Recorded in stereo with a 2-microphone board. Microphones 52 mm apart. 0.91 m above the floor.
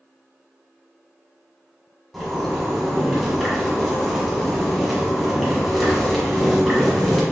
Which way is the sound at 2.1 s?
5° right (ahead or behind).